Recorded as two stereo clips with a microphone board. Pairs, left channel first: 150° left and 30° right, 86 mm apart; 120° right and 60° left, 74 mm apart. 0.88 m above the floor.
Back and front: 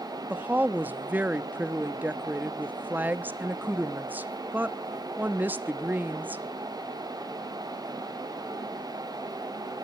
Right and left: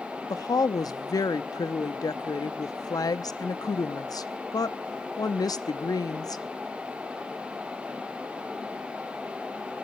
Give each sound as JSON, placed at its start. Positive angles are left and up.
{"t": 0.3, "sound": "a woman speaking", "azimuth_deg": -95, "distance_m": 0.9}